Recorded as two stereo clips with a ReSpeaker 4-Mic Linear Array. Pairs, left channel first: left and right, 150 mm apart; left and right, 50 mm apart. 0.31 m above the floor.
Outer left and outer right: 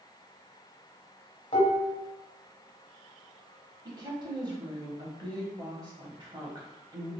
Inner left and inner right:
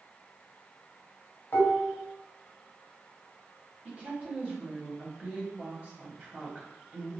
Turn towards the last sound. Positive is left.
turn(degrees=-30)  # may be behind; listen again after turning